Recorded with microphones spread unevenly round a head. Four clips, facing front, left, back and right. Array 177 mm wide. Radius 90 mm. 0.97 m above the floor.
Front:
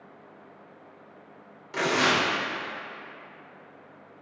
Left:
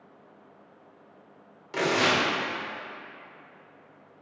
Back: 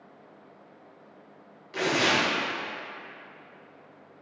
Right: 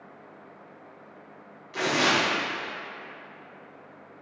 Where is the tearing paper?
70° left, 1.2 m.